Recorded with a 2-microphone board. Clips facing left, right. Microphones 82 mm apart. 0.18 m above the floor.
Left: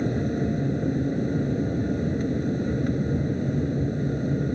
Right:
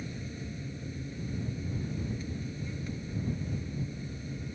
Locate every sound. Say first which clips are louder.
0.0 s an aircraft: left 16 dB; 55° left (ahead or behind)